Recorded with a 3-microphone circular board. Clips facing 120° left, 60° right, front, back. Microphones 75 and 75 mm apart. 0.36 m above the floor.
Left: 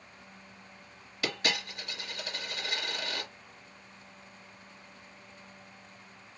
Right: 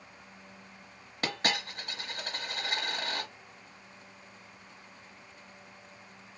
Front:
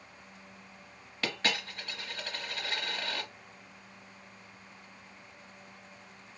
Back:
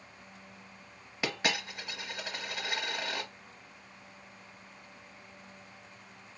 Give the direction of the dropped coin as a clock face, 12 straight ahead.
3 o'clock.